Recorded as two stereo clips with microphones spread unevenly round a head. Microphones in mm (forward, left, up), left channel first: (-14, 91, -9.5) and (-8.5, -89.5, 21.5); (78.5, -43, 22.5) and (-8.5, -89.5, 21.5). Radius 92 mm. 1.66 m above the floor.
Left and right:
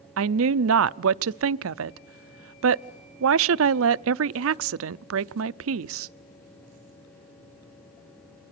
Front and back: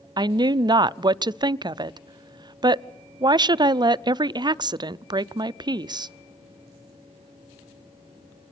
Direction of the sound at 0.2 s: 105° right.